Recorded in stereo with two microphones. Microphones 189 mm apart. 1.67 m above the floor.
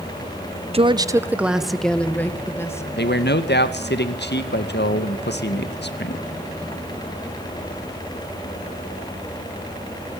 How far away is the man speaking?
About 1.9 m.